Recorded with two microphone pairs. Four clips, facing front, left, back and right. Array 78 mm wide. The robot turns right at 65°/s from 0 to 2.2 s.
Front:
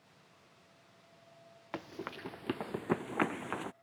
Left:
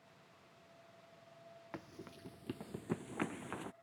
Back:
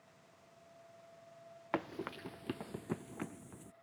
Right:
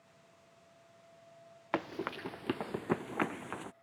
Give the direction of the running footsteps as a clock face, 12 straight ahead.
4 o'clock.